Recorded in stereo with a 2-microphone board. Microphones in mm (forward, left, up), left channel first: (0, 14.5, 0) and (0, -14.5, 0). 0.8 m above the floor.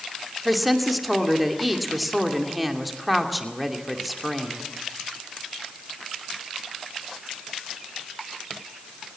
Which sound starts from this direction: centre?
A woman speaking, at 0.5 s.